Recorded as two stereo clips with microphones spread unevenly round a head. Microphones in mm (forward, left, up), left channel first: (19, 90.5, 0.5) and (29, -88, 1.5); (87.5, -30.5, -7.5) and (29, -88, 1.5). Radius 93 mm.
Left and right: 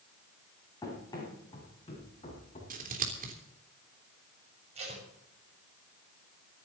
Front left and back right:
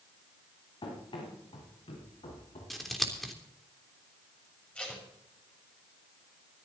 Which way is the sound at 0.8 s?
20° left.